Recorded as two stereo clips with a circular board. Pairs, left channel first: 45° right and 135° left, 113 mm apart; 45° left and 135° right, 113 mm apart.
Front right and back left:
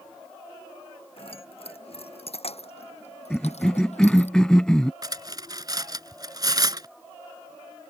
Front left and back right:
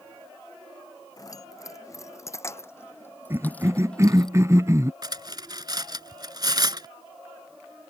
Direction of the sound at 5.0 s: Straight behind.